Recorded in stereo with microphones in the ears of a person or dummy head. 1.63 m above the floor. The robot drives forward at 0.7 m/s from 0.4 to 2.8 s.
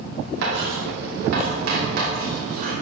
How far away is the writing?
About 2.5 m.